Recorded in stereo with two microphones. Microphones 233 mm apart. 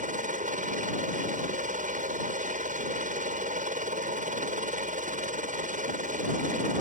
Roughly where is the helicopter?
Right.